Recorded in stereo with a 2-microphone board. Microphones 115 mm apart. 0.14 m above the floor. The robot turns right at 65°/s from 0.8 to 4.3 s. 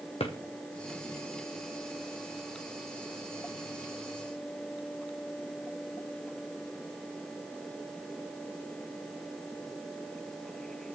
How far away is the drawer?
About 1.8 m.